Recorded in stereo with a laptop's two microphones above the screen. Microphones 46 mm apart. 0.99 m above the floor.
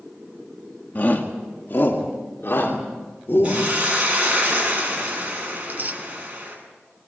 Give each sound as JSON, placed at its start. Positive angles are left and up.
{"t": 0.9, "sound": "a shout", "side_deg": 45, "distance_m": 1.6}
{"t": 3.4, "sound": "a hiss", "side_deg": -25, "distance_m": 8.0}
{"t": 5.6, "sound": "tearing paper", "side_deg": -40, "distance_m": 1.5}